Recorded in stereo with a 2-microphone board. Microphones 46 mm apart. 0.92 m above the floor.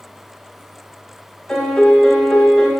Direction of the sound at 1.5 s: 25° left (ahead or behind).